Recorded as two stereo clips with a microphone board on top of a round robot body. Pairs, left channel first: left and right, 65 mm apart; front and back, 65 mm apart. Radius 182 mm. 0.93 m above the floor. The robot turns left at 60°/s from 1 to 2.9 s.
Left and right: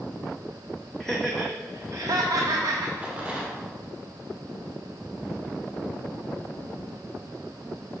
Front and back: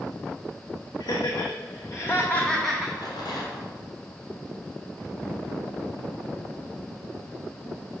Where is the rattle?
20° right, 1.3 m.